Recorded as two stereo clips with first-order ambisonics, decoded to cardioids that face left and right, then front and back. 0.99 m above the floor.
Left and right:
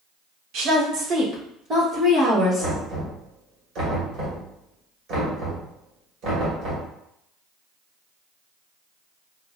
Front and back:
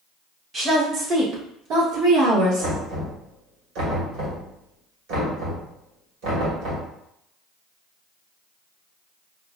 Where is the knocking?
145° right, 2.0 m.